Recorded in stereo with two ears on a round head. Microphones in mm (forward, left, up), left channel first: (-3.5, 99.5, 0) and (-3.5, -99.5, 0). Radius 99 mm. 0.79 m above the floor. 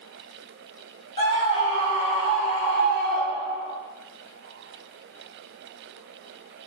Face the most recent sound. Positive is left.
turn(degrees=30)  # may be behind; listen again after turning